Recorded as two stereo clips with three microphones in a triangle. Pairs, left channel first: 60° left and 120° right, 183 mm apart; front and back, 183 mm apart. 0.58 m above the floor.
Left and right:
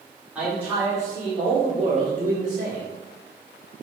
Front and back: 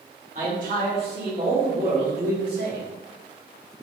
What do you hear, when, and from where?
0.3 s a man speaking: 160° left, 1.6 m; by 2.8 s 150° right, 2 m